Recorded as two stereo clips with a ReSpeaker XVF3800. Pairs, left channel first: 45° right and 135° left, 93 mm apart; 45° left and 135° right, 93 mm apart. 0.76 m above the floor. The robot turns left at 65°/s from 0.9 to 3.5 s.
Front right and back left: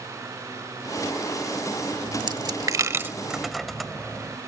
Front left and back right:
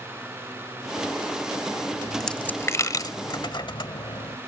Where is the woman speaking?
No woman speaking in this recording.